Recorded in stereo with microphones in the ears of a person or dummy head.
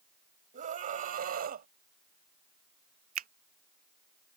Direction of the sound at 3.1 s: 40° right (ahead or behind).